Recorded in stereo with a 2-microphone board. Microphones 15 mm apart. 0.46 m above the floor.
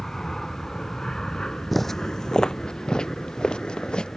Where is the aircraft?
35° left (ahead or behind); by 4.2 s 65° left (ahead or behind).